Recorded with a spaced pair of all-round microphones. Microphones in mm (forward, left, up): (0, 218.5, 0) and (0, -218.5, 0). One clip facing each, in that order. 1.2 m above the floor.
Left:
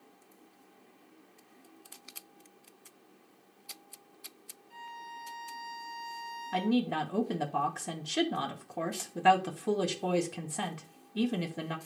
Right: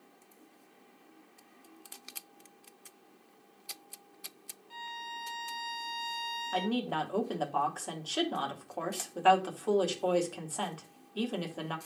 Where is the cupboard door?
No cupboard door in this recording.